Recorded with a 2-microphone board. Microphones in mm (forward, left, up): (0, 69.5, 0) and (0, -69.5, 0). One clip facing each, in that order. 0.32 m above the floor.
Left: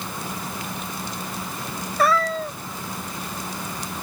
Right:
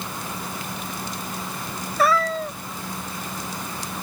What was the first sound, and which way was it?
A cat meowing, centre (ahead or behind).